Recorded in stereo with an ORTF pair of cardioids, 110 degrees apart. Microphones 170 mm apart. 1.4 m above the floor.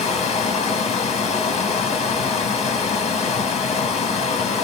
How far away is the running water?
About 1.1 m.